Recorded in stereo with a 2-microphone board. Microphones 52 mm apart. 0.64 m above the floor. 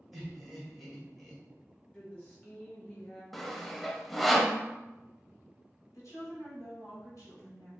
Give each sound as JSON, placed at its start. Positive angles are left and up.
{"t": 0.1, "sound": "laughter", "side_deg": -5, "distance_m": 2.5}
{"t": 1.9, "sound": "a woman speaking", "side_deg": 20, "distance_m": 1.0}
{"t": 3.3, "sound": "sawing", "side_deg": 5, "distance_m": 0.5}
{"t": 5.9, "sound": "a woman speaking", "side_deg": 65, "distance_m": 2.5}